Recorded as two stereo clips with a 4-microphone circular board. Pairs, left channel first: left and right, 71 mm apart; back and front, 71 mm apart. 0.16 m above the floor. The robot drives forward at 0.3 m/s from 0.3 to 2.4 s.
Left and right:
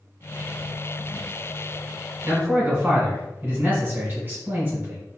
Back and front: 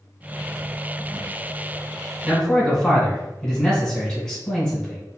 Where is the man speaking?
105° right, 1.2 m; by 5.0 s 110° right, 1.2 m.